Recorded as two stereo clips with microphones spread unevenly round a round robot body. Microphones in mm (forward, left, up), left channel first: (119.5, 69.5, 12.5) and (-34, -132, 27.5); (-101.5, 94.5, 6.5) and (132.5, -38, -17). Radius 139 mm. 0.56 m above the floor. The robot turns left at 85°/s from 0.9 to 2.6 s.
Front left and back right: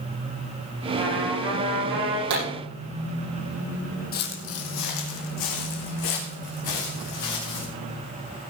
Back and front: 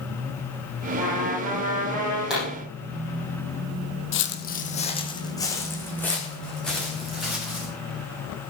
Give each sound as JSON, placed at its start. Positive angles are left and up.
{"t": 0.9, "sound": "a trumpet", "azimuth_deg": -5, "distance_m": 7.5}
{"t": 2.3, "sound": "a pop", "azimuth_deg": -115, "distance_m": 8.5}
{"t": 4.1, "sound": "footsteps", "azimuth_deg": 115, "distance_m": 1.3}